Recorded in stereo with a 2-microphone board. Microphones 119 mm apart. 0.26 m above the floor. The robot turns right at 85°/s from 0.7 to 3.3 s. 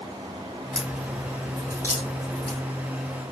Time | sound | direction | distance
0.7 | a crack | 5° right (ahead or behind) | 1.4 m